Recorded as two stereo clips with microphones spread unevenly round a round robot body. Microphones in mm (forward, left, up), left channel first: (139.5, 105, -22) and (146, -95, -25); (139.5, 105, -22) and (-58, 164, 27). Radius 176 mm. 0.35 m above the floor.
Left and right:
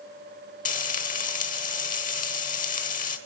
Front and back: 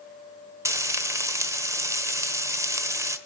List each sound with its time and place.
0.7 s frying: 75° left, 1.0 m